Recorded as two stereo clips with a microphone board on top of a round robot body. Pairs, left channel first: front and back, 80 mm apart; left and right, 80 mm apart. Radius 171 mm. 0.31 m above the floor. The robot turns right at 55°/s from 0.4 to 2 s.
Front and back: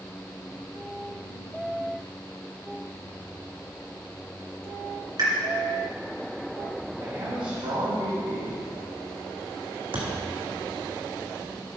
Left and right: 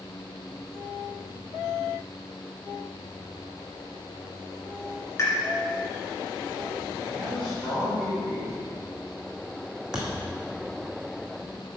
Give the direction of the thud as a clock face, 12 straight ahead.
6 o'clock.